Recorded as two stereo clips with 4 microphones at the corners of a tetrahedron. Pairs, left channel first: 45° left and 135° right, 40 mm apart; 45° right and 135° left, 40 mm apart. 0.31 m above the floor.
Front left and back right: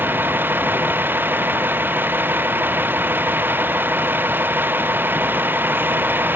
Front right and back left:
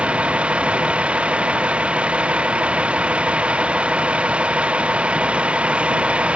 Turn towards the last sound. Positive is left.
turn(degrees=-165)